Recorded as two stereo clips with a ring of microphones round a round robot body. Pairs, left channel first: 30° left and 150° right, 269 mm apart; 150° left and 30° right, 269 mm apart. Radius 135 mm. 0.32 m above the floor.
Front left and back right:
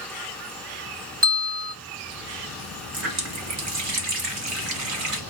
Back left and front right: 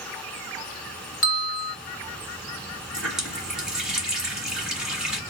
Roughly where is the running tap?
Behind right.